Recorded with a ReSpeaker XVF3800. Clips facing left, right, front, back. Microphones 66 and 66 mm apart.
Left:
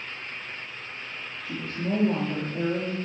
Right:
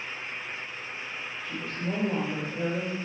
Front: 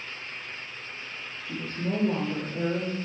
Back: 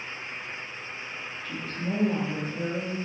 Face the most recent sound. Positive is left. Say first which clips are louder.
# left 3 dB, front 2 dB
turn(degrees=65)